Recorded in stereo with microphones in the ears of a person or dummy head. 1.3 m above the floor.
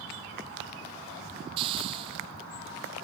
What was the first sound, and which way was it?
A hiss, 30° right (ahead or behind).